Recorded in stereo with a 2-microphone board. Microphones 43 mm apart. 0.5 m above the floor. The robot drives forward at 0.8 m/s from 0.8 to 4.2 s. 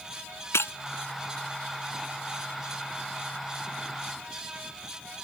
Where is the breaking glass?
85° left.